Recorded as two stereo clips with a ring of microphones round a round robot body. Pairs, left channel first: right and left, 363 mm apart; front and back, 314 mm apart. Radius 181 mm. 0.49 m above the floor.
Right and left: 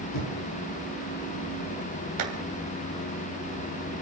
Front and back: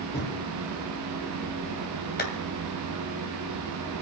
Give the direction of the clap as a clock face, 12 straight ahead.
10 o'clock.